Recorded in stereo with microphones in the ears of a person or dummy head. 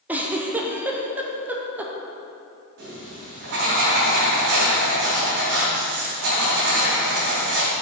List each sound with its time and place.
0.1 s a giggle: 15° right (ahead or behind), 0.6 m
2.8 s writing: 75° right (ahead or behind), 3 m